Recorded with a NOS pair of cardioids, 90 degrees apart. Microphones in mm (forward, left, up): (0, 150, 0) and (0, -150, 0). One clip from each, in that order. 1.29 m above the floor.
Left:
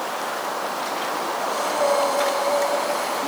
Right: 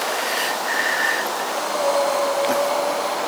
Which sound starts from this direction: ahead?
Breathing, at 1.4 s.